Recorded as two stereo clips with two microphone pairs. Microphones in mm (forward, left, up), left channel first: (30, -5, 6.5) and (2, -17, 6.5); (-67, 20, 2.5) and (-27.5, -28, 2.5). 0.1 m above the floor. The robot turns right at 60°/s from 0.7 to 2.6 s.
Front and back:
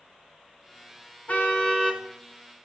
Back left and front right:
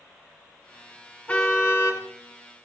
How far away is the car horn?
About 6 m.